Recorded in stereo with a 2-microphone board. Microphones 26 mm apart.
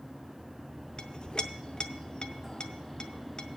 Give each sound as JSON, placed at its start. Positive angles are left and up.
{"t": 1.0, "sound": "a clink", "side_deg": 35, "distance_m": 0.6}